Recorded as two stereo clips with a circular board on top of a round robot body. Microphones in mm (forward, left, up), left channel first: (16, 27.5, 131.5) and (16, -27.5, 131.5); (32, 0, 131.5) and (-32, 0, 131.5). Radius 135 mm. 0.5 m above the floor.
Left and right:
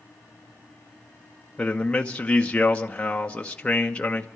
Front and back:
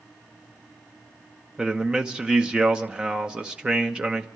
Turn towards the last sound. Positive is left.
turn(degrees=125)